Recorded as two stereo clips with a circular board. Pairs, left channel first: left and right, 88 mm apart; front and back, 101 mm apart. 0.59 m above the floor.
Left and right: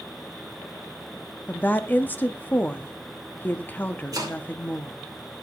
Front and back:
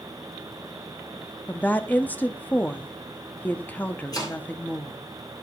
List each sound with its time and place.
1.5 s a woman speaking: 50° left, 0.6 m
4.1 s chopping: 45° right, 2.5 m